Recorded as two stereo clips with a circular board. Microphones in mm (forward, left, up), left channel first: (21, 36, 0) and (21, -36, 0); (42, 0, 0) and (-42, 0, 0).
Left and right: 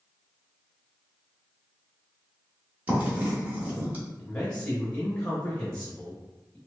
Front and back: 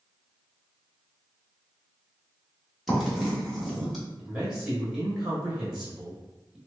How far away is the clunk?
I don't hear a clunk.